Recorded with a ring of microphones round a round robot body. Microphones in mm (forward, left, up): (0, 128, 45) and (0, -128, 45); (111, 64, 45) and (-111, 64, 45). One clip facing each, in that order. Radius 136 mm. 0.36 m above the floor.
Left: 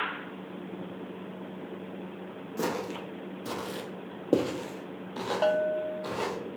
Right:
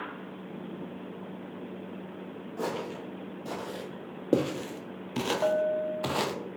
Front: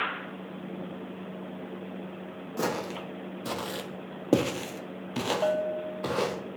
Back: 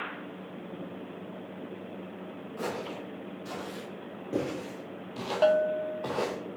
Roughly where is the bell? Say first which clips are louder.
Left 3 dB, back 9 dB; behind left.